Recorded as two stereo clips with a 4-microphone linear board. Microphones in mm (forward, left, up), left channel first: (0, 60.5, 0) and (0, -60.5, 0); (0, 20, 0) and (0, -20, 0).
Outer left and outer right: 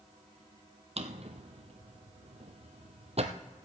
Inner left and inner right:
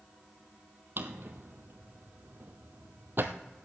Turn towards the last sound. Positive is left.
turn(degrees=-60)  # may be behind; listen again after turning